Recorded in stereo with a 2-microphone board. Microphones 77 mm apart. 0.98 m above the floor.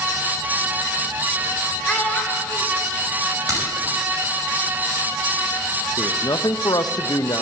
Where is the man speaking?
60° left (ahead or behind), 0.5 m.